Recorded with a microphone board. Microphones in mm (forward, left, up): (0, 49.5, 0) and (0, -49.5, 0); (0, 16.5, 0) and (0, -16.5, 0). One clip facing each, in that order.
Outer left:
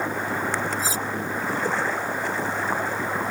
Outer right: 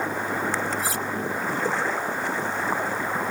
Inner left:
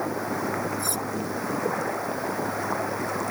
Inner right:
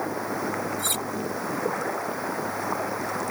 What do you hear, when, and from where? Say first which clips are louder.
0.8 s cutlery clinking: even, inner right 1 dB; 65° right (ahead or behind)